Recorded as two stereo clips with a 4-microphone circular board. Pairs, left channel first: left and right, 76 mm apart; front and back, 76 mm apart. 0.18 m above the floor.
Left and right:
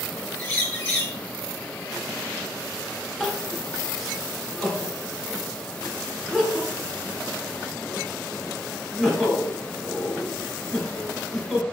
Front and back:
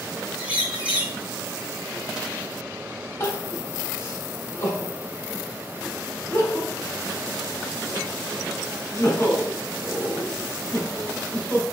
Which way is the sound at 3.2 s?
5° left.